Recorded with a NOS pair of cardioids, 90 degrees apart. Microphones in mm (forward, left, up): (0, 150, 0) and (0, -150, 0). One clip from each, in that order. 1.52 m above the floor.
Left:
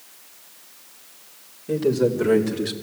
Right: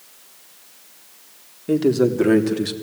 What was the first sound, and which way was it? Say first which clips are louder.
A man speaking: right 3 dB; 55° right.